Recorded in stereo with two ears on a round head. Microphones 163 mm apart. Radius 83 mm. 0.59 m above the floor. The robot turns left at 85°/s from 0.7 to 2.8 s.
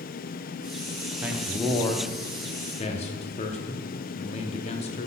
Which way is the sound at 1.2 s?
160° right.